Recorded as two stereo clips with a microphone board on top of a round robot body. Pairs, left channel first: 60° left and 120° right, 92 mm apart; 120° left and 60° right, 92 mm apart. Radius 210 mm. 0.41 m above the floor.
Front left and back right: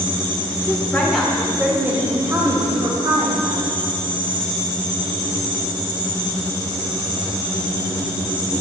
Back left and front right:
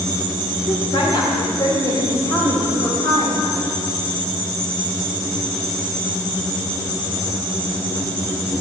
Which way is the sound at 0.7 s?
125° left.